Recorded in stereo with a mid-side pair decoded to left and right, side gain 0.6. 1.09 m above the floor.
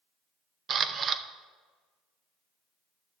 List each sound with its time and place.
0.7 s a camera shutter: 40° right, 0.6 m